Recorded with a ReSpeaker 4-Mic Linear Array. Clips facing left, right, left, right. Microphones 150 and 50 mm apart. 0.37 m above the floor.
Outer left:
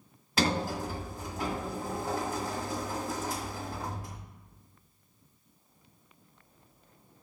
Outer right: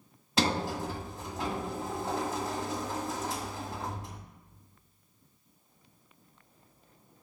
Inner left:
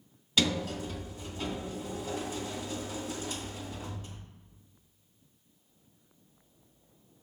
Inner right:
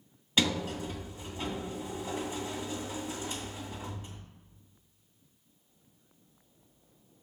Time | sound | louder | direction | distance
0.4 | a sliding door | even, even | 25° right (ahead or behind) | 1.4 m